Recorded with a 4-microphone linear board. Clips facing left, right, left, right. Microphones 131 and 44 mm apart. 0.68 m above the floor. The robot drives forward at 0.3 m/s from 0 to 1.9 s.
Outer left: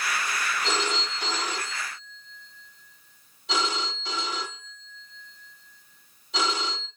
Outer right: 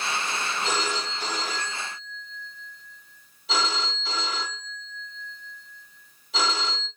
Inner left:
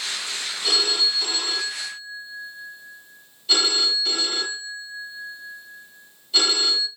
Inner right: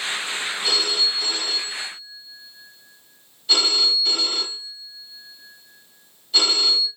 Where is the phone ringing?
Centre (ahead or behind), 1.7 m.